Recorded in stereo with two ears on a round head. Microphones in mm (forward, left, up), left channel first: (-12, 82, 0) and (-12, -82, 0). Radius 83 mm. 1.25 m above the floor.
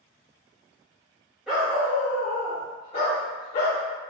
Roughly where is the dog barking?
Centre.